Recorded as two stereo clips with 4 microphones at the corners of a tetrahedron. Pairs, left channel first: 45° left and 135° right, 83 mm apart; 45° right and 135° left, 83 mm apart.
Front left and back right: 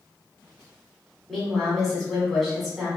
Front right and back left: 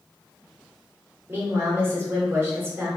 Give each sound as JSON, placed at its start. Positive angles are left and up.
{"t": 1.3, "sound": "a woman speaking", "azimuth_deg": 135, "distance_m": 1.2}